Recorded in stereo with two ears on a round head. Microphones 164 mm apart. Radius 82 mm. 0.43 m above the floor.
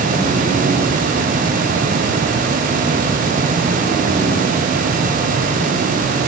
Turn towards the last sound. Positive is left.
No sound to turn to.